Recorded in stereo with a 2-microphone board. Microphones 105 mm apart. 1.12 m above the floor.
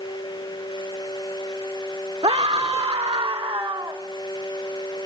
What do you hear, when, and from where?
2.2 s a scream: 40° right (ahead or behind), 0.8 m; by 4.0 s 25° right (ahead or behind), 1.5 m